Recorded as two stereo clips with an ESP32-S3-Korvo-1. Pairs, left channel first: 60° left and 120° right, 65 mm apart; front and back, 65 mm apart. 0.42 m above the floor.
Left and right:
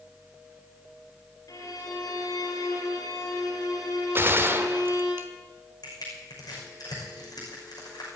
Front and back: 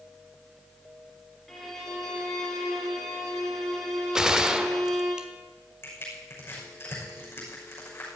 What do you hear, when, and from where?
1.5 s a violin: 85° left, 3 m
4.2 s a gunshot: 105° right, 1.0 m
5.8 s crushing: 55° left, 6 m